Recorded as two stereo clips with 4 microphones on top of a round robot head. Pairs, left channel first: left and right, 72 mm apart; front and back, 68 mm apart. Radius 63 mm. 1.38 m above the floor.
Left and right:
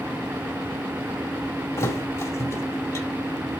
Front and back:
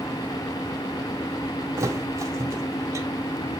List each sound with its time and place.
1.8 s a thud: 135° left, 1.8 m